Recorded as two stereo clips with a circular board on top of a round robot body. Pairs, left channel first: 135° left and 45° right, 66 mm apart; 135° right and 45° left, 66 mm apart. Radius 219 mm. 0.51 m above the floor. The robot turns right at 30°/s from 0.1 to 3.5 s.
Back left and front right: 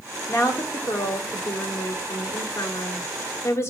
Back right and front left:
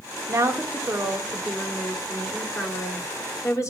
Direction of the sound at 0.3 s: 90° left.